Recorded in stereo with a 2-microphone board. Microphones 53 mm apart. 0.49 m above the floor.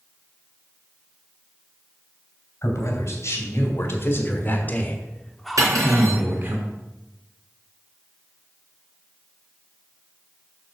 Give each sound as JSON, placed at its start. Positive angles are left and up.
{"t": 2.6, "sound": "a man speaking", "side_deg": 65, "distance_m": 3.0}
{"t": 5.6, "sound": "cutlery clinking", "side_deg": -80, "distance_m": 3.5}